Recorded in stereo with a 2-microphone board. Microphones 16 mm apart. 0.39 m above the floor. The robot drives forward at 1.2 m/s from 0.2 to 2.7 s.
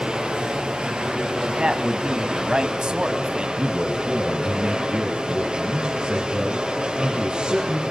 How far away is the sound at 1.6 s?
About 3 m.